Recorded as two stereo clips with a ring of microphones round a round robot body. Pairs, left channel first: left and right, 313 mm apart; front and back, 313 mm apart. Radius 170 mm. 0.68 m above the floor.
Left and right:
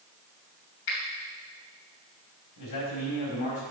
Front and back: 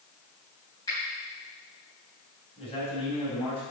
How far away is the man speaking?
About 4 m.